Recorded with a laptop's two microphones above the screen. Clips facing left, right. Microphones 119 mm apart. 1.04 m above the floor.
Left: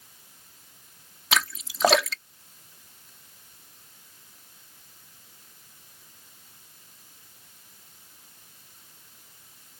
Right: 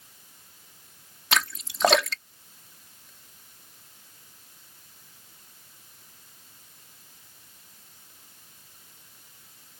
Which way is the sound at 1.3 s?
Centre (ahead or behind).